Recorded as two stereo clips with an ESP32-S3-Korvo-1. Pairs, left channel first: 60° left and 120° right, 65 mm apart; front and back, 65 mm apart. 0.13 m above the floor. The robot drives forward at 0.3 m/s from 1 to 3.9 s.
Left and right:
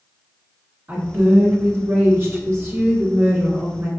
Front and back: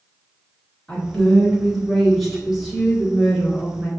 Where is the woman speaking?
75° right, 1.9 m; by 3.9 s 110° right, 1.9 m.